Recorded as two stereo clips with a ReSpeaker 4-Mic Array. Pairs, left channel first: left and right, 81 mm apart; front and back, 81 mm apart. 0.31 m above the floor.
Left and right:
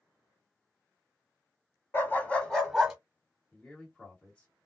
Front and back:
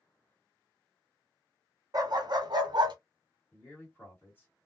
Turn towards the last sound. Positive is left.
turn(degrees=35)